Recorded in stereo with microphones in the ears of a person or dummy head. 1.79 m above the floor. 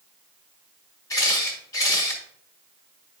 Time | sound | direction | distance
1.1 | a camera shutter | 20° left (ahead or behind) | 2 m